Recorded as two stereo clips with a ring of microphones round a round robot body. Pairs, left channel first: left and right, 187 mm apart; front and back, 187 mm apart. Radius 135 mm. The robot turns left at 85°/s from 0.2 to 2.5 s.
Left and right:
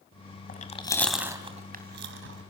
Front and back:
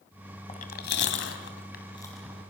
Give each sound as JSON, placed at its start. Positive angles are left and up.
{"t": 0.5, "sound": "chewing", "azimuth_deg": 55, "distance_m": 2.0}